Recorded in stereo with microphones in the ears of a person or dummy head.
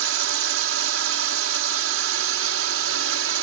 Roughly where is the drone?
Right.